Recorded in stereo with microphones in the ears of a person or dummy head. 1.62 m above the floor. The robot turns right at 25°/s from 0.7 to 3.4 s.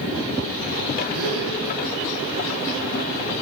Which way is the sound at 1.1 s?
75° right (ahead or behind).